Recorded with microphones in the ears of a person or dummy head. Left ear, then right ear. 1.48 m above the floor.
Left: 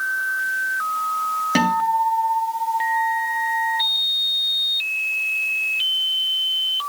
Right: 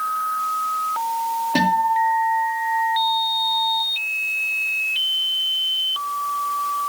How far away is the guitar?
About 2.5 m.